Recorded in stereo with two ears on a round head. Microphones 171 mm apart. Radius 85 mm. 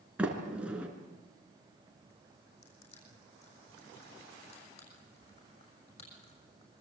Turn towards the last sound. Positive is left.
turn(degrees=35)  # may be behind; listen again after turning